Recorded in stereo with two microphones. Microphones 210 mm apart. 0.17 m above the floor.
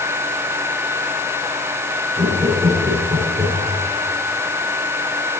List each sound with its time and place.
2.2 s laughter: 30° right (ahead or behind), 8 m; by 3.8 s 20° right (ahead or behind), 7 m